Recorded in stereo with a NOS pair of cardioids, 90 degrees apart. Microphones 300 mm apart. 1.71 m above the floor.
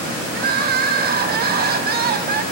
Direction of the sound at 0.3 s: 35° right.